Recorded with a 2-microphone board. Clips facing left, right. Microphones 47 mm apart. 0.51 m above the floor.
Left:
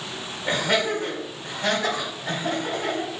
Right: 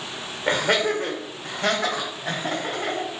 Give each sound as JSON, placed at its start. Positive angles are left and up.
{"t": 0.5, "sound": "laughter", "side_deg": -55, "distance_m": 1.3}